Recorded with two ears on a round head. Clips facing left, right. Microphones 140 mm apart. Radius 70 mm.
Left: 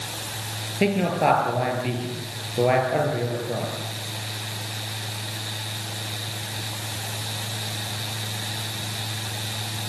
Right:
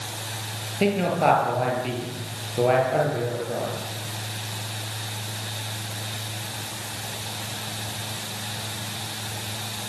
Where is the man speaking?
5° left (ahead or behind), 8.5 m.